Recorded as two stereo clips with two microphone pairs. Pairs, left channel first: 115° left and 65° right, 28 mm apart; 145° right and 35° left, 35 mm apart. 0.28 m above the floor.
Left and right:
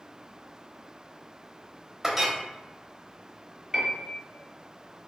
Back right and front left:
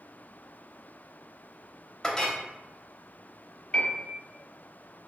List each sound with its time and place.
2.0 s a clink: 110° right, 0.5 m
3.7 s a piano: 105° right, 0.9 m